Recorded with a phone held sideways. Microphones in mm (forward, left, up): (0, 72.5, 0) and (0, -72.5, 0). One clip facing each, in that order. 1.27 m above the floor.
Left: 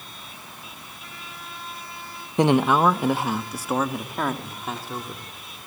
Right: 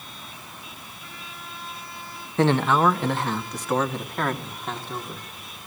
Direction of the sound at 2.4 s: 15° left (ahead or behind).